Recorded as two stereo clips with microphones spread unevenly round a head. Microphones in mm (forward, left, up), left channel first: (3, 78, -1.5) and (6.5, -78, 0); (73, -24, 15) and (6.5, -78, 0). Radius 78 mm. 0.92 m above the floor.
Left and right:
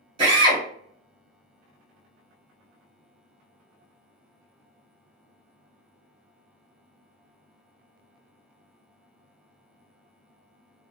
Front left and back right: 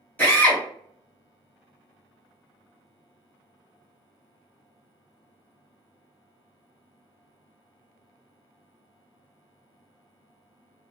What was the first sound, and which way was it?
A drill, 35° right.